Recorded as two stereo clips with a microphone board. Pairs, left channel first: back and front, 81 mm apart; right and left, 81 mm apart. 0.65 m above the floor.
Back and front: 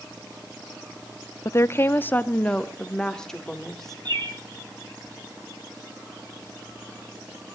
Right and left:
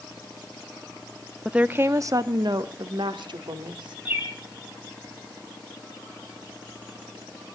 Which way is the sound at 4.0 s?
20° left.